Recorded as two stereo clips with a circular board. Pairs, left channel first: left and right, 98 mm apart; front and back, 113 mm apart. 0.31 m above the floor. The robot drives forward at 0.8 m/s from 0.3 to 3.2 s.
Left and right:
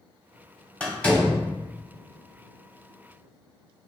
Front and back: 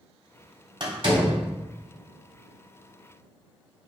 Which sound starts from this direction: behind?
A door slam, at 0.8 s.